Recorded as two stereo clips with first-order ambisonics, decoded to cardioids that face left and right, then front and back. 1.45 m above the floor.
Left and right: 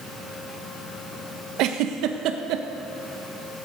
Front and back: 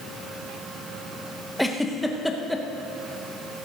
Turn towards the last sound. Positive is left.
turn(degrees=-90)